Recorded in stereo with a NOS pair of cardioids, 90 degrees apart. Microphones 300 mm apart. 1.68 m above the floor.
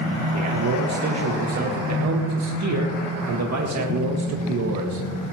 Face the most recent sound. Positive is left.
turn(degrees=-65)